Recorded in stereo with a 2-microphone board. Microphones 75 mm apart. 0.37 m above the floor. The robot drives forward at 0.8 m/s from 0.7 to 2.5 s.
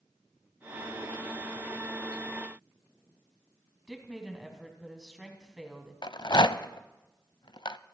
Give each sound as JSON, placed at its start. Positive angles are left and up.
{"t": 3.9, "sound": "a woman speaking", "side_deg": -5, "distance_m": 3.0}
{"t": 6.0, "sound": "a rattle", "side_deg": 80, "distance_m": 0.5}